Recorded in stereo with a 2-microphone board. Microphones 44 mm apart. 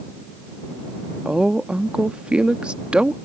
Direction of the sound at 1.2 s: 25° right (ahead or behind).